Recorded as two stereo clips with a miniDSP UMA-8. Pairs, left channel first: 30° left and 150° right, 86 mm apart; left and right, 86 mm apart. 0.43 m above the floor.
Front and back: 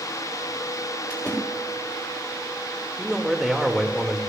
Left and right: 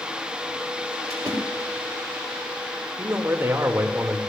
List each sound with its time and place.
1.1 s a splash: 40° right, 6 m
3.0 s a man speaking: 65° right, 1.4 m